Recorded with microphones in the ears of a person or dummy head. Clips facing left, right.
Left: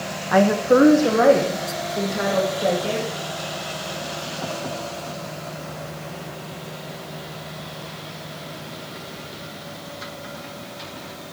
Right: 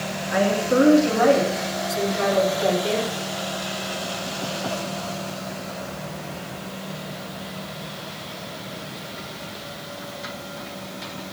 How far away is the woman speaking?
About 1.2 m.